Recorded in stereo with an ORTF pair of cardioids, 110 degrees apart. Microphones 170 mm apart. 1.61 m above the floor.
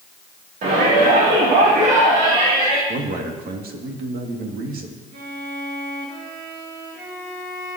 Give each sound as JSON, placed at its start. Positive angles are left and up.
{"t": 0.6, "sound": "a shout", "azimuth_deg": -50, "distance_m": 3.0}
{"t": 2.9, "sound": "a man speaking", "azimuth_deg": -60, "distance_m": 2.5}
{"t": 5.1, "sound": "a violin", "azimuth_deg": -60, "distance_m": 5.5}